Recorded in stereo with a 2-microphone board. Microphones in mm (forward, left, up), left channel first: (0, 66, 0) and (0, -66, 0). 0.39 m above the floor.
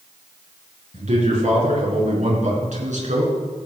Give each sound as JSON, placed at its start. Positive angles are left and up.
{"t": 0.9, "sound": "a man speaking", "side_deg": -65, "distance_m": 6.5}